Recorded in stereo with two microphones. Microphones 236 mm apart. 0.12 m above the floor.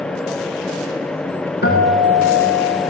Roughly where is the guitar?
Left.